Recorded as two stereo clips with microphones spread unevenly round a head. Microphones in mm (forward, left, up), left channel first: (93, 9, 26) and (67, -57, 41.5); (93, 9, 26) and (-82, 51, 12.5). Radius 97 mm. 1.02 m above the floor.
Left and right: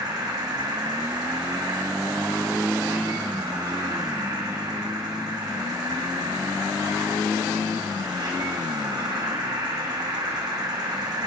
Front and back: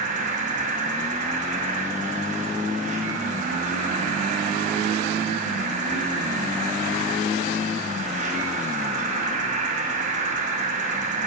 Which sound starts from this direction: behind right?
An insect, at 0.0 s.